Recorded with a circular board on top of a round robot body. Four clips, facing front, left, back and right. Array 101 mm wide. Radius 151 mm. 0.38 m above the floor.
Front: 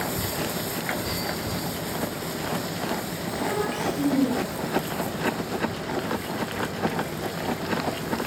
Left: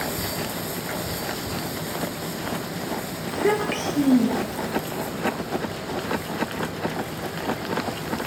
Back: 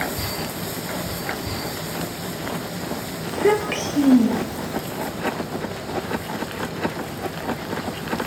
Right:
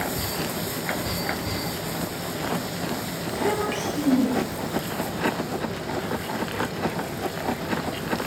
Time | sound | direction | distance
3.3 | a child speaking | 150° left | 6.5 m